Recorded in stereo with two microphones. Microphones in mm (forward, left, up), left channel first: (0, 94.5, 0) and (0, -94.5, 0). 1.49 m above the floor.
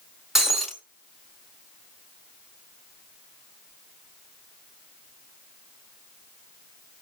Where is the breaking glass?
Centre (ahead or behind), 1.6 m.